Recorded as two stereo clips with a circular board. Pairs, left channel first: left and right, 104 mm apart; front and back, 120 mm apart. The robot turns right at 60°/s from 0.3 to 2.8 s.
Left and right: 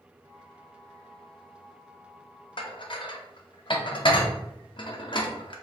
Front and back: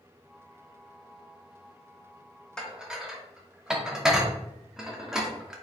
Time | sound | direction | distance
2.6 | dishes clattering | 80° left | 0.5 m